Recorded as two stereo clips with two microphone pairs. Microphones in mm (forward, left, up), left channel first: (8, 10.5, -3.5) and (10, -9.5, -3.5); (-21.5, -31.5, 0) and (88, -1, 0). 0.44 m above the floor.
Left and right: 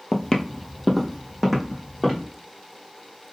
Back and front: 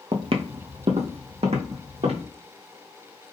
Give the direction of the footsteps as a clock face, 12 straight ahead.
11 o'clock.